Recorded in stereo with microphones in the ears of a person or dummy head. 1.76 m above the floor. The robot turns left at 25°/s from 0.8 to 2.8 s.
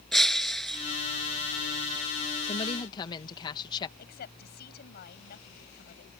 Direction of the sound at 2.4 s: 35° left (ahead or behind).